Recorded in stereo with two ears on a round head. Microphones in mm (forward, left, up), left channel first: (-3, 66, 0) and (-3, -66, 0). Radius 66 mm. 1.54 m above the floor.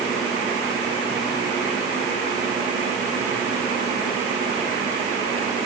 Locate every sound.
Only background noise.